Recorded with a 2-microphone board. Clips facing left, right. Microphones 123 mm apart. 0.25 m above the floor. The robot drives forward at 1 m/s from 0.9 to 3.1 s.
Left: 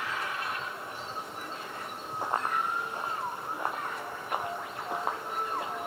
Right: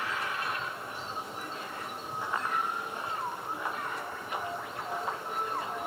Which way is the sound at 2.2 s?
45° left (ahead or behind).